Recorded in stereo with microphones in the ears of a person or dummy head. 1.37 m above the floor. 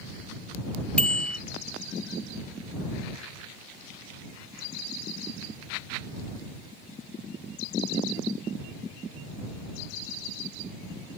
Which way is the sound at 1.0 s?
5° left (ahead or behind).